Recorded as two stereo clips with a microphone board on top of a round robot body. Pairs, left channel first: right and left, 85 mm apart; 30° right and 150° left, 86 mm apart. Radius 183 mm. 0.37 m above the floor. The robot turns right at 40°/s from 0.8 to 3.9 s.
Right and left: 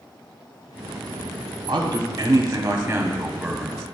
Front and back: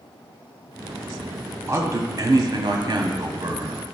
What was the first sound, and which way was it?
A man speaking, 105° left.